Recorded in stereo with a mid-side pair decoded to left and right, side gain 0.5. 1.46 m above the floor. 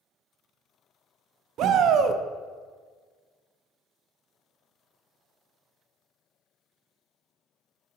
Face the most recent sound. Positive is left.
turn(degrees=-65)